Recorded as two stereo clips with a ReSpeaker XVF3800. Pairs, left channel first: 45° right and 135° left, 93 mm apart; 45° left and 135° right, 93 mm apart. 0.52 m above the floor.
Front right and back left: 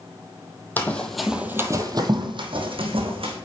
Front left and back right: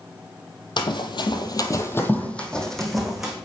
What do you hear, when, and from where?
0.8 s running footsteps: 25° left, 1.0 m; by 3.4 s 140° left, 1.8 m